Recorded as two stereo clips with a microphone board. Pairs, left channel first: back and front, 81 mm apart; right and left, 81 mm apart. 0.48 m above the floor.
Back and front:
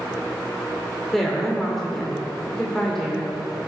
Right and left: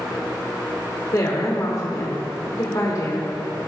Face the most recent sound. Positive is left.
turn(degrees=-95)